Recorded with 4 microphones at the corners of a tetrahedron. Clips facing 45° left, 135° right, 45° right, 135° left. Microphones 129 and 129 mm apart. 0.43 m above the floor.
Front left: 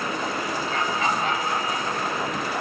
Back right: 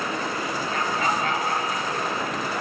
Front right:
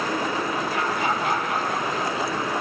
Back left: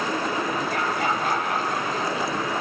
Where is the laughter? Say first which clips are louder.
Even, even; straight behind, 9.5 m; by 2.5 s 170° right, 11.5 m.